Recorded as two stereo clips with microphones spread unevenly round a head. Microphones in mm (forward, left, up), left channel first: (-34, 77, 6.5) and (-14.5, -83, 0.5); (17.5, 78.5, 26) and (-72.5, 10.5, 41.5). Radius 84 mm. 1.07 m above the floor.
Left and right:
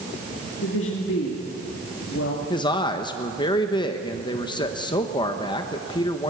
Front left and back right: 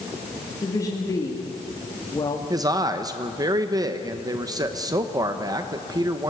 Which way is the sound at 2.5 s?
160° left.